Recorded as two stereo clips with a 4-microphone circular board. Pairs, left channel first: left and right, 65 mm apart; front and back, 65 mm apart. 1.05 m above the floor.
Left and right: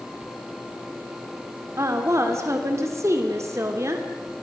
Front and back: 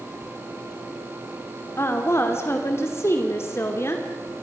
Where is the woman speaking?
50° right, 2.5 m.